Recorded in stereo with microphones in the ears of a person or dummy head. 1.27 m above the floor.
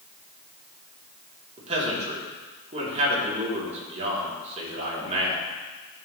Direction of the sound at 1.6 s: 30° right (ahead or behind).